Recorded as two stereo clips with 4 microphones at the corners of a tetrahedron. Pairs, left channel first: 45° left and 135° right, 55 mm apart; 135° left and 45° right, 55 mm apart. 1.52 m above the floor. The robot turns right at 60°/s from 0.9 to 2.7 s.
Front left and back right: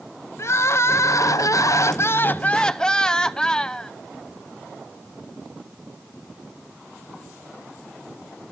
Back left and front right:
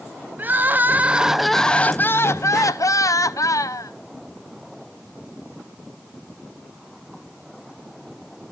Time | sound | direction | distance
0.4 | crying | 15° left | 0.7 m